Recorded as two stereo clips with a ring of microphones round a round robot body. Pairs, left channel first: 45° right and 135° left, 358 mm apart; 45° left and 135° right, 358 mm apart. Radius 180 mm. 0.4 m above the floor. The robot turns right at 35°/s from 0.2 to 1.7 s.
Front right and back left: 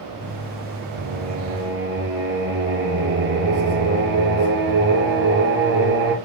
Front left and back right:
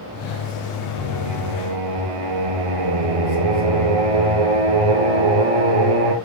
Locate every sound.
1.0 s singing: 170° left, 2.0 m; by 6.2 s 165° right, 2.0 m